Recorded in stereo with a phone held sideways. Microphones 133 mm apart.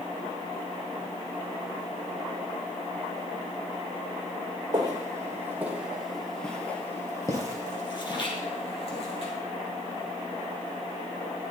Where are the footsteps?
30° right (ahead or behind), 2 m; by 9.3 s 50° left (ahead or behind), 3 m.